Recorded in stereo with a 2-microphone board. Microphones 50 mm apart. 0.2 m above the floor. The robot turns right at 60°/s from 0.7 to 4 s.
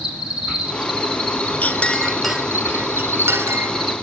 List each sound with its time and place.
0.0 s an insect: 10° right, 7 m; by 4.0 s 175° right, 7 m
1.6 s a clink: 35° left (ahead or behind), 1.6 m; by 4.0 s 60° right (ahead or behind), 1.6 m